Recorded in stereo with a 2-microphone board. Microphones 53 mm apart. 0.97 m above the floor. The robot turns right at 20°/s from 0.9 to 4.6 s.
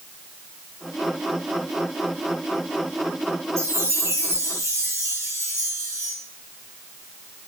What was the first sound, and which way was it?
A chime, 80° right.